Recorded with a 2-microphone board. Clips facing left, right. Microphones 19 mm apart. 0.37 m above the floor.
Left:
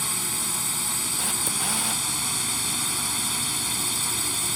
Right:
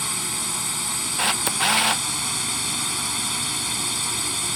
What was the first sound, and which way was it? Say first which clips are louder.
A drone: right 2 dB; 20° right (ahead or behind).